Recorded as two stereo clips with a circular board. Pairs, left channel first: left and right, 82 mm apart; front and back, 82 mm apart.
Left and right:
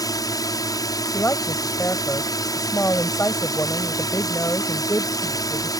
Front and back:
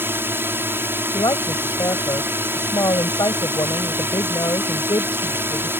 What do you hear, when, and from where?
0.0 s a drone: 120° left
1.1 s a woman speaking: 30° left